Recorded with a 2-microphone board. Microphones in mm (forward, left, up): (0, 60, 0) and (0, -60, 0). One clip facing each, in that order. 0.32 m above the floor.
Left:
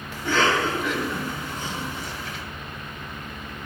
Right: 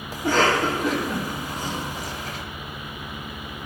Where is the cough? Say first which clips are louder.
Right 2 dB; 40° right (ahead or behind), 1.9 m.